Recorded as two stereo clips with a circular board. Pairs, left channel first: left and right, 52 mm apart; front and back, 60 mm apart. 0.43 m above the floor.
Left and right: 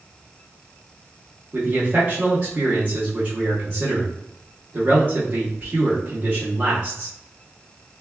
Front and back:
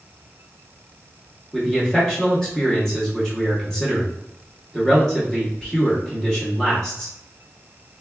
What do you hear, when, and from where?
1.5 s a man speaking: 80° right, 0.8 m